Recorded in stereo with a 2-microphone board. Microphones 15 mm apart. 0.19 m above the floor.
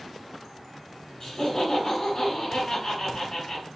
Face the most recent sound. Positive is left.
turn(degrees=25)  # may be behind; listen again after turning